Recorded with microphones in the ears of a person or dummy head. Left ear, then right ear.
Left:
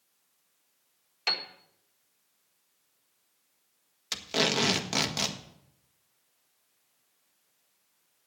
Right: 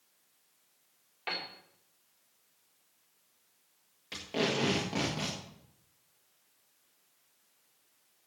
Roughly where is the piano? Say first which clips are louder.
Left 7 dB; left.